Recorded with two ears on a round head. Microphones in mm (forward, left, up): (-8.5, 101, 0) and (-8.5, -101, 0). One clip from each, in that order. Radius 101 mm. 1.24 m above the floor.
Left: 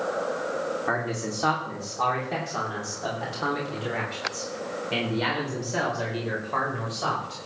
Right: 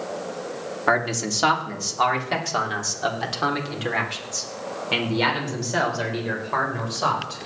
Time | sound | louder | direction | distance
0.9 | a man speaking | right 6 dB | 70° right (ahead or behind) | 2.5 m